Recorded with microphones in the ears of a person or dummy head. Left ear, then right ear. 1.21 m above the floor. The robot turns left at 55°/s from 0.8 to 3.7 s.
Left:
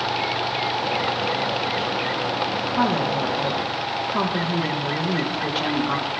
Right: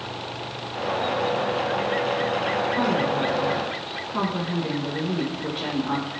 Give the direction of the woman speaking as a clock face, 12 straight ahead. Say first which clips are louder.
Left 1 dB; 7 o'clock.